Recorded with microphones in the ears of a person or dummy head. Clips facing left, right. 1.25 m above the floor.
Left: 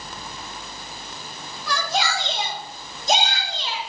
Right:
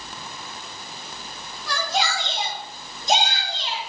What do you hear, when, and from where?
1.7 s a shout: 80° left, 3.5 m